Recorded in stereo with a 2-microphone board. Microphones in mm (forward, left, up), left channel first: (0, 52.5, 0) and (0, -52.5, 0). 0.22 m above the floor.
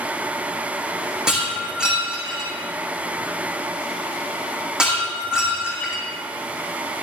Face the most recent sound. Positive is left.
turn(degrees=-10)  # may be behind; listen again after turning